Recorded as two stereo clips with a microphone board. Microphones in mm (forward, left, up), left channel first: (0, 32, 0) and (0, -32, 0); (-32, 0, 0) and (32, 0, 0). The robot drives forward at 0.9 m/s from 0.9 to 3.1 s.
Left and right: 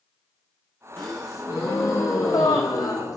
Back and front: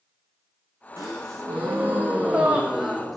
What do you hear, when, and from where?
1.0 s a gasp: 40° left, 2.5 m; by 3.2 s 90° left, 1.6 m